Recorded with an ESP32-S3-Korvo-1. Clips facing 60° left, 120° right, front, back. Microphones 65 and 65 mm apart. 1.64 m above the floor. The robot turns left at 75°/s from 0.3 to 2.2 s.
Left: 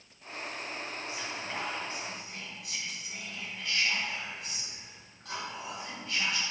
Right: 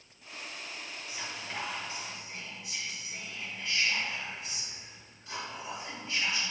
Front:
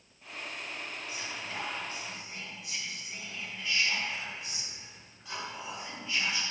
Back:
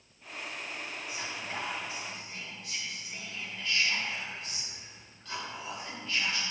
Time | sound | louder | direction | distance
1.1 | whispering | even, back 2 dB | 165° left | 2 m